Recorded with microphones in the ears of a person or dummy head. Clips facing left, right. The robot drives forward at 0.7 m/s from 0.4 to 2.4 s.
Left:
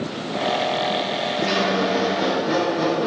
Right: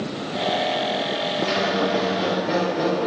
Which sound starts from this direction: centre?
A squeak, at 1.4 s.